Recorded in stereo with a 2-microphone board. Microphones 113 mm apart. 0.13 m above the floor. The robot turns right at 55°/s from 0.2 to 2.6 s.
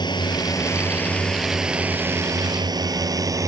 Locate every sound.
0.0 s a drone: 40° left (ahead or behind); by 3.5 s 30° right (ahead or behind)